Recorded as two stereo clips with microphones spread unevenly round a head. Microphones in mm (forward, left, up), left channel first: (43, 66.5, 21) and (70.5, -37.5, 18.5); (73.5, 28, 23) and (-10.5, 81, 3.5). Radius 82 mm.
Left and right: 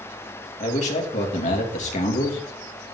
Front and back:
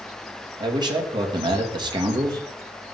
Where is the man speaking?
100° left, 2.5 m.